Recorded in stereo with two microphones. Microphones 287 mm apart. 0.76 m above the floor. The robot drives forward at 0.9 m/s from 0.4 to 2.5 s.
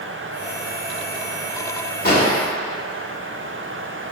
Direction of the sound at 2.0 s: 30° left (ahead or behind).